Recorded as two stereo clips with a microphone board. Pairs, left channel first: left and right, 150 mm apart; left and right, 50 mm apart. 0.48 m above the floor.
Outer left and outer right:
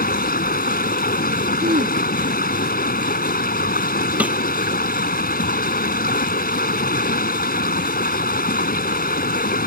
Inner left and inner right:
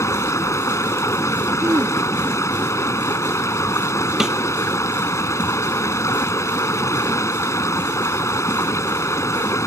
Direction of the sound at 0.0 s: 75° left (ahead or behind).